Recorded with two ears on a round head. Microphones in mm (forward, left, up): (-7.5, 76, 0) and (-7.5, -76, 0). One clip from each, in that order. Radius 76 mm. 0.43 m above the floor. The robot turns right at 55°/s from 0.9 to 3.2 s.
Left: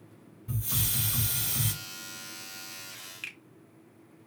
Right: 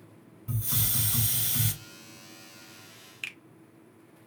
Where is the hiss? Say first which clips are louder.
Right 1 dB; 135° right, 2.5 m; by 1.7 s 90° right, 2.5 m.